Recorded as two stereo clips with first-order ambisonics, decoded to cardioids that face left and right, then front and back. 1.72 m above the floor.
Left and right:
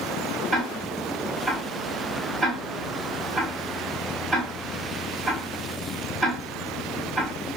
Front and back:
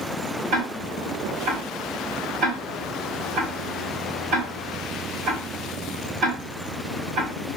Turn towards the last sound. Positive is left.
turn(degrees=-165)